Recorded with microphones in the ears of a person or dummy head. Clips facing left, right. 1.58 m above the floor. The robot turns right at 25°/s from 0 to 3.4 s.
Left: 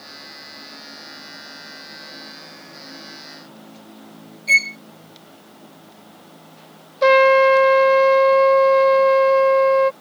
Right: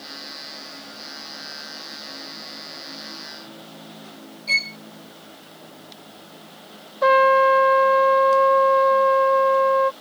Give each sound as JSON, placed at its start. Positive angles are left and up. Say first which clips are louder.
{"t": 4.5, "sound": "a violin", "louder": "left 8 dB", "side_deg": 25}
{"t": 7.0, "sound": "a trumpet", "louder": "left 4 dB", "side_deg": 40}